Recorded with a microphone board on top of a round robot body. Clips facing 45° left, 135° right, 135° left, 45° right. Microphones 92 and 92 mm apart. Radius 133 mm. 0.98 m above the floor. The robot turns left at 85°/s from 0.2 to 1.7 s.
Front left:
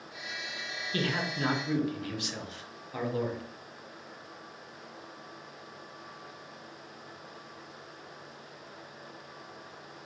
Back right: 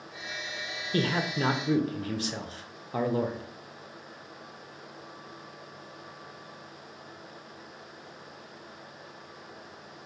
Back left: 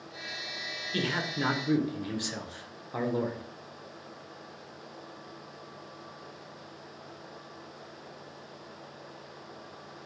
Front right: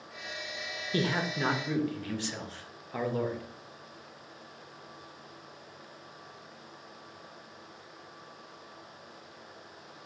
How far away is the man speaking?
About 0.7 m.